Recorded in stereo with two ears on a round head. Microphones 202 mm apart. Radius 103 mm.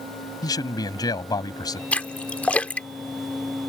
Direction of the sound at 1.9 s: 5° left (ahead or behind).